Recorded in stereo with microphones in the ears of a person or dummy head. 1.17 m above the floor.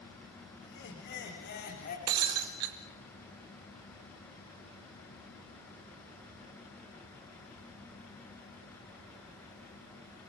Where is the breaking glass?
20° right (ahead or behind), 0.8 m.